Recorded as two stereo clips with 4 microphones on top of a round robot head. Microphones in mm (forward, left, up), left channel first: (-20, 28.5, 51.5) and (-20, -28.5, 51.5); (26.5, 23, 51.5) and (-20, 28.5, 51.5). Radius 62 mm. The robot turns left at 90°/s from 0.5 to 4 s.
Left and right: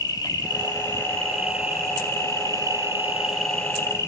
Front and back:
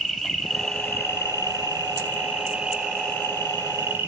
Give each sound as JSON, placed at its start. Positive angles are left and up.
{"t": 0.0, "sound": "an insect", "azimuth_deg": 85, "distance_m": 5.5}